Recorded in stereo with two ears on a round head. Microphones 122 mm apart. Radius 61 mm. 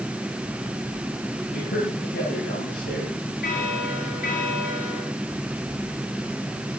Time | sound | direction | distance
1.5 | a man speaking | 80° left | 6.5 m
3.4 | a bell | 75° left (ahead or behind) | 7 m